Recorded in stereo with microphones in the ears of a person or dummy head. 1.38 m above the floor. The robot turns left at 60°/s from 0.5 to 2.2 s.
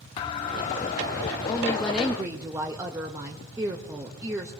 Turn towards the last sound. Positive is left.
turn(degrees=-20)